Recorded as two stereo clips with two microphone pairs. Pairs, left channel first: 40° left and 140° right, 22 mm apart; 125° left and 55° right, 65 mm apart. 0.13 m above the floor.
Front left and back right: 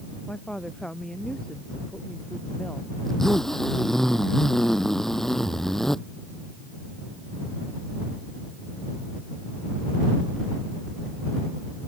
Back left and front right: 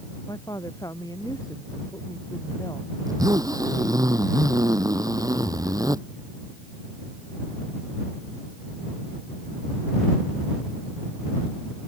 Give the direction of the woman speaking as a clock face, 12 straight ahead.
9 o'clock.